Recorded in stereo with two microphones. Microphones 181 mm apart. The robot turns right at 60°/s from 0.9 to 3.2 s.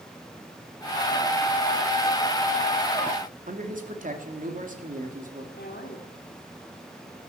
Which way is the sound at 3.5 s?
45° right (ahead or behind).